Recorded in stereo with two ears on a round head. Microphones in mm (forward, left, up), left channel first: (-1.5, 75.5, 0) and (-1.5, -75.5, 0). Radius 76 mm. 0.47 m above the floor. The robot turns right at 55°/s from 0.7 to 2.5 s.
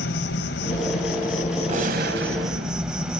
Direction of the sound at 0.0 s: 85° left.